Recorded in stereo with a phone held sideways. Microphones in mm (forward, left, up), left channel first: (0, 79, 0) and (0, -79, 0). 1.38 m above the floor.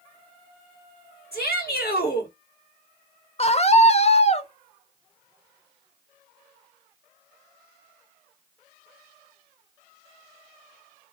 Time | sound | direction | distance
1.3 | a shout | 80° left | 1.7 m
3.4 | a scream | 40° left (ahead or behind) | 0.5 m